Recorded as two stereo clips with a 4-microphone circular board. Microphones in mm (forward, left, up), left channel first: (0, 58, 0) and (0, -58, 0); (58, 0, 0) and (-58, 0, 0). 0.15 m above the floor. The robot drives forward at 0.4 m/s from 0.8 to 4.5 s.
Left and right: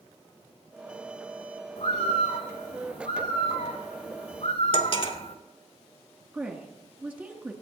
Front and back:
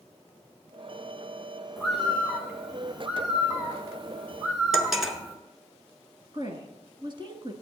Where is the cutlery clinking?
95° left, 1.1 m.